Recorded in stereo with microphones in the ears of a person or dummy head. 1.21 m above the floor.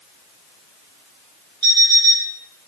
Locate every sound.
1.6 s an alarm clock: 25° right (ahead or behind), 1.9 m